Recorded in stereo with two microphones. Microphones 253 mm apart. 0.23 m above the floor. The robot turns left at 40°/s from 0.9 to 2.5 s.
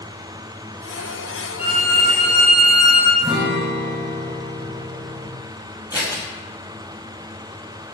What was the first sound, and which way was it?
A violin, 135° left.